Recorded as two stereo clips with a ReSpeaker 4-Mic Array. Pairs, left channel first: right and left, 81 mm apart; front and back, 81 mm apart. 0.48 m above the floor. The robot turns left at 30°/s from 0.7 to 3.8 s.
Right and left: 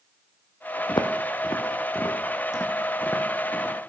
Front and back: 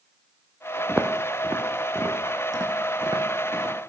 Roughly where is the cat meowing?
No cat meowing in this recording.